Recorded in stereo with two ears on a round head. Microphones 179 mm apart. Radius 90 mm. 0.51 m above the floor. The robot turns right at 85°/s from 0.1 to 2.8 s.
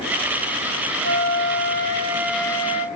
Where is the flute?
110° right, 0.5 m; by 2.9 s 40° left, 0.5 m.